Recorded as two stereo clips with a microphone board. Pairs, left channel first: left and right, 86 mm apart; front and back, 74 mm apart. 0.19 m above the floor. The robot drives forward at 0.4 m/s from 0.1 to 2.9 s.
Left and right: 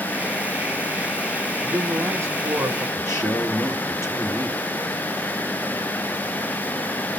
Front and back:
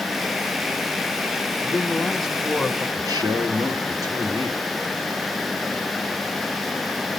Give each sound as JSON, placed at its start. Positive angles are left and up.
{"t": 1.6, "sound": "a man speaking", "azimuth_deg": -65, "distance_m": 1.1}
{"t": 3.0, "sound": "a man speaking", "azimuth_deg": 150, "distance_m": 4.0}